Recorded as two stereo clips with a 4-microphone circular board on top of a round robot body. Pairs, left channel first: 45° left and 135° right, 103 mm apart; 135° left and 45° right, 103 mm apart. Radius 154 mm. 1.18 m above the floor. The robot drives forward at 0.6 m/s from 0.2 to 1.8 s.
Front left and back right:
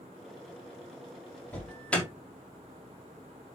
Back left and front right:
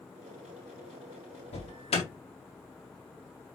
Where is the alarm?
120° left, 5 m.